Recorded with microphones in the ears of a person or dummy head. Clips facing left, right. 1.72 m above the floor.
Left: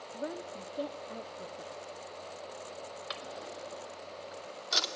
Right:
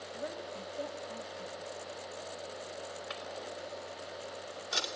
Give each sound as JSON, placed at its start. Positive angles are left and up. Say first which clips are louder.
{"t": 0.1, "sound": "a woman speaking", "louder": "left 3 dB", "side_deg": 55, "distance_m": 0.8}
{"t": 3.1, "sound": "a drawer", "louder": "right 1 dB", "side_deg": 45, "distance_m": 2.5}